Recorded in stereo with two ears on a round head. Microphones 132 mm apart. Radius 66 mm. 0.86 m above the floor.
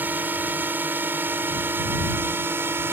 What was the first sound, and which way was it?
A drone, 10° right (ahead or behind).